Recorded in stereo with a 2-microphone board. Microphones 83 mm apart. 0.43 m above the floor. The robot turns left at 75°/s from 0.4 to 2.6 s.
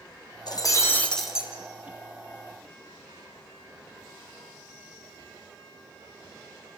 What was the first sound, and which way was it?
Breaking glass, 60° left.